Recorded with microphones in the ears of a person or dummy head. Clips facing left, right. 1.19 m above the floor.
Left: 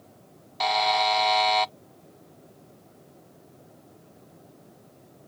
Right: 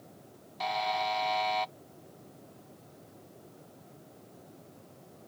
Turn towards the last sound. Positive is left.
turn(degrees=65)  # may be behind; listen again after turning